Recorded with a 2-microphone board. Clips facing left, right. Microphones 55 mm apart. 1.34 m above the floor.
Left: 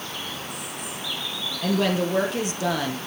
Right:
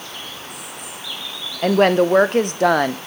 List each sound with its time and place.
1.6 s a woman speaking: 55° right (ahead or behind), 1.0 m